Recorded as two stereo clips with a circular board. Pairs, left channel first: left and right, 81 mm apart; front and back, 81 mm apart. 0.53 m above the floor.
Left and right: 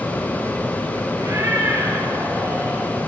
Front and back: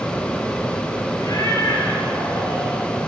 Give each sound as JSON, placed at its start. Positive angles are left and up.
{"t": 1.2, "sound": "a cat meowing", "azimuth_deg": -40, "distance_m": 2.5}